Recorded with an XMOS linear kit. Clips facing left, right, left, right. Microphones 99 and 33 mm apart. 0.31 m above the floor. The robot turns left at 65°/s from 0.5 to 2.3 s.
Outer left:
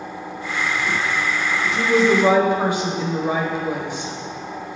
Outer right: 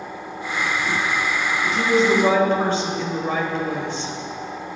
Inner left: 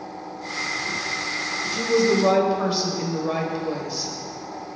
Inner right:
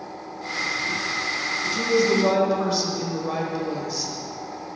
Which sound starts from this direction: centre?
A woman speaking, at 1.7 s.